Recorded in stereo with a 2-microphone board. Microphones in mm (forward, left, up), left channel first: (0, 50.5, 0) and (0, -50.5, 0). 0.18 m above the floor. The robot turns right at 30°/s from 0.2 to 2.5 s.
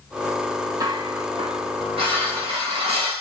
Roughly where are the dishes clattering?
Behind right.